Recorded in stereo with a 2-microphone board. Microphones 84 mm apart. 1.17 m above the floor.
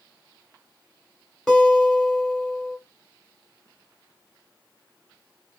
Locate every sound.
1.5 s a guitar: 5° left (ahead or behind), 1.9 m